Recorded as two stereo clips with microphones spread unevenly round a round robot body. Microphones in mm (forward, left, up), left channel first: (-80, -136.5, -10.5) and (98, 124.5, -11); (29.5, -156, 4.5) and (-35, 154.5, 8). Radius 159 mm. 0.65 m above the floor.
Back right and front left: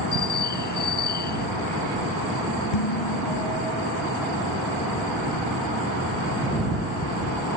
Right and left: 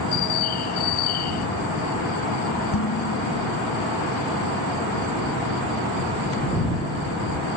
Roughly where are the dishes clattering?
Behind right.